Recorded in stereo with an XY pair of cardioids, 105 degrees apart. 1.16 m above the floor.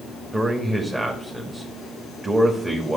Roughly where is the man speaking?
Ahead.